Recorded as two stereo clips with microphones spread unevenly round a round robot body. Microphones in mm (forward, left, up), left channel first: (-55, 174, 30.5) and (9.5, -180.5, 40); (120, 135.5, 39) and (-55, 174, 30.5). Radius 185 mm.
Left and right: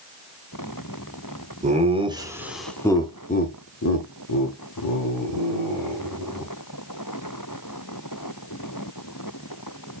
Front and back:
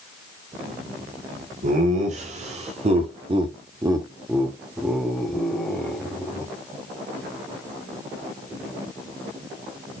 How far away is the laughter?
About 1.3 m.